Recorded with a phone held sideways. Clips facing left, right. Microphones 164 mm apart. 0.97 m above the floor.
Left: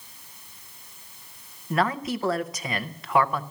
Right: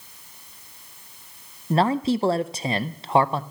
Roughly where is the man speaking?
Right.